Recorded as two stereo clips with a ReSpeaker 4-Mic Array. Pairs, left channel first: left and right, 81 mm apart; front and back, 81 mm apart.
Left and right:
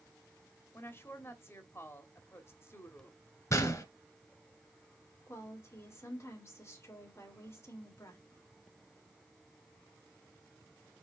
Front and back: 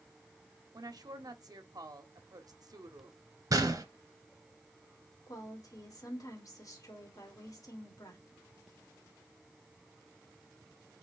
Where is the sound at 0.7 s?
145° left, 1.2 m.